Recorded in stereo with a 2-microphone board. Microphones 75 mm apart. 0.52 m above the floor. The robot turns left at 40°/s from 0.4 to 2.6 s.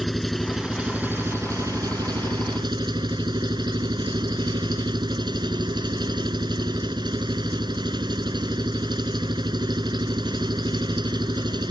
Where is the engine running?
5° left; by 11.7 s 85° right.